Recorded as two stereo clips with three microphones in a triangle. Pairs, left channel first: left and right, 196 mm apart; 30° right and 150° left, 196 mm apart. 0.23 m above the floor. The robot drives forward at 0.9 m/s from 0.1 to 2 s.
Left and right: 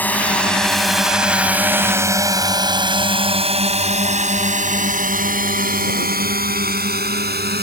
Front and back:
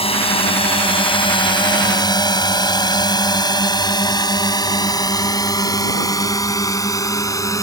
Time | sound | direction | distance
0.0 | a drone | 15° left | ?